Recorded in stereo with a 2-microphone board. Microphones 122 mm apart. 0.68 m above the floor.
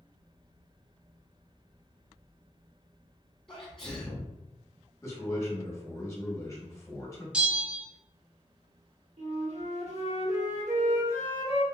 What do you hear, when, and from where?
3.5 s a sneeze: 5° left (ahead or behind), 1.0 m
5.0 s a man speaking: 25° left (ahead or behind), 1.0 m
7.3 s a bell: 10° right (ahead or behind), 0.5 m
9.2 s a flute: 60° right (ahead or behind), 1.0 m